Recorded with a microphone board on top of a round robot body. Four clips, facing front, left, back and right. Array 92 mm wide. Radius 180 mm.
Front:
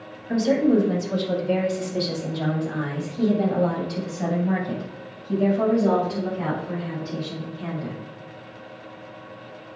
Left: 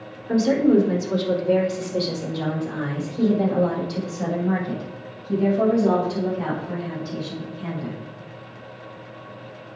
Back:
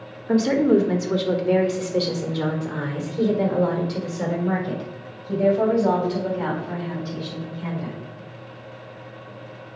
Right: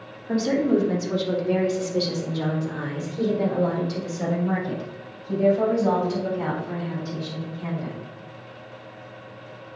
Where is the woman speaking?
Straight behind, 1.9 m; by 8.0 s 160° right, 6.5 m.